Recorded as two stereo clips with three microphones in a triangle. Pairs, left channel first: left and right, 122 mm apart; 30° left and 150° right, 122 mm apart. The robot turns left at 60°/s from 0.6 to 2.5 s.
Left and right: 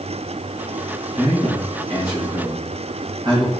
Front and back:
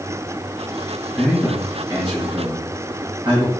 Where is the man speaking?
50° right, 1.8 m; by 3.5 s 130° right, 1.8 m.